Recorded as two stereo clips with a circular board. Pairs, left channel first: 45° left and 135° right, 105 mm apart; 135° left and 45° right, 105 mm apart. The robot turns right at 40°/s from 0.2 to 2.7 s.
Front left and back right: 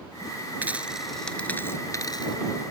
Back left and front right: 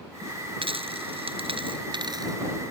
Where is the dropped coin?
65° right; by 2.4 s 5° left.